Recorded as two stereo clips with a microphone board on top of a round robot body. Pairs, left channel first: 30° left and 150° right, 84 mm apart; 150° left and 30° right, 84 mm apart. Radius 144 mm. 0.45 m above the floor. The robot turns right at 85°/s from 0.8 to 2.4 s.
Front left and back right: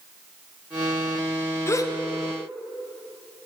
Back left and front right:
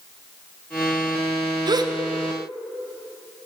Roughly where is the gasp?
Ahead.